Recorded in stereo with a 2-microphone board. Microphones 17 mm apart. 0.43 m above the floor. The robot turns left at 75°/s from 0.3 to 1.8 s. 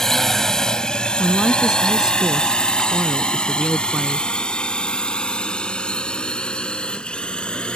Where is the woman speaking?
Straight ahead; by 4.3 s 45° right.